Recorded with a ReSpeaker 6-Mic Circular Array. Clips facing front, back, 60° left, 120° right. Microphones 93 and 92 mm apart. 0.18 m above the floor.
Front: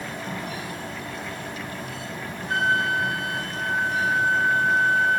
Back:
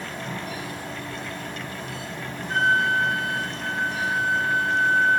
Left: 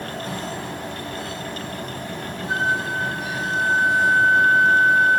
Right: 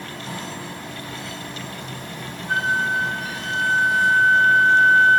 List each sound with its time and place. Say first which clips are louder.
2.5 s a flute: back 2 dB, right 2 dB; 5° right, 9.5 m